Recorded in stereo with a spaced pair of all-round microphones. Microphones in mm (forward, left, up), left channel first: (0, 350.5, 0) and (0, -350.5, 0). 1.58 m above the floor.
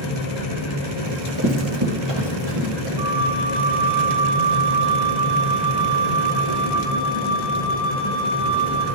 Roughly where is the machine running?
Left.